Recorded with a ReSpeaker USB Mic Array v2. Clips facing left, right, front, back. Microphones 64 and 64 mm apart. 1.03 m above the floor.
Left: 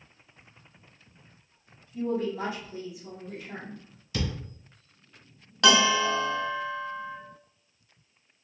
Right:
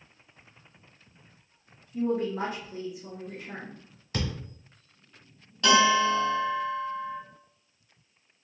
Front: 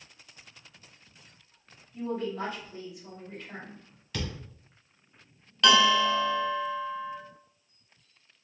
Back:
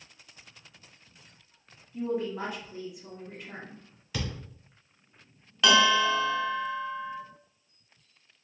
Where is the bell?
95° left, 0.6 m.